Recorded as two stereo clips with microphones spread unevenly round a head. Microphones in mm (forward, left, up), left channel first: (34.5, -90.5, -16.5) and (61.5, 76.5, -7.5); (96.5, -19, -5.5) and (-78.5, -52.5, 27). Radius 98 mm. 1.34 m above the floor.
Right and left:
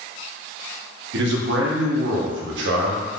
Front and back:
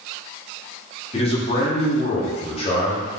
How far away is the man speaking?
About 0.8 m.